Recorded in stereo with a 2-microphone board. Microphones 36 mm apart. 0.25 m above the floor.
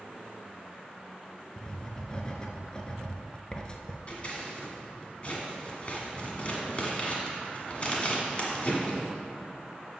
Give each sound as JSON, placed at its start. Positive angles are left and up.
{"t": 1.6, "sound": "writing", "side_deg": 25, "distance_m": 0.6}
{"t": 4.1, "sound": "scissors", "side_deg": 35, "distance_m": 1.3}